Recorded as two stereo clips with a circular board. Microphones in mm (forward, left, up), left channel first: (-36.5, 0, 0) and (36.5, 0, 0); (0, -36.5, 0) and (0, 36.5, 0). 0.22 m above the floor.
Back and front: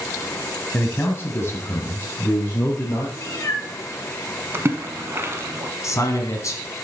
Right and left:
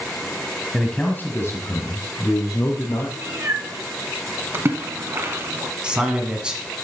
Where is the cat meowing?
140° left, 1.5 m.